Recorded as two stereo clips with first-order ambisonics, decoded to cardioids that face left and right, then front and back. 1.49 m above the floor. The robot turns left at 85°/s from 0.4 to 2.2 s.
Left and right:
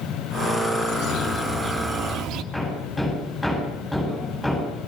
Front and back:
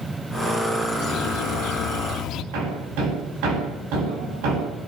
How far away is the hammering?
About 10 m.